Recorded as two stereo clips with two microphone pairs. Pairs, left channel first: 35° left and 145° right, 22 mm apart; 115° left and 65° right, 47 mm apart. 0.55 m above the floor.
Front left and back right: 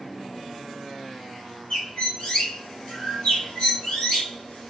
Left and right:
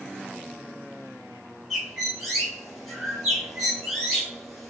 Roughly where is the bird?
Ahead left.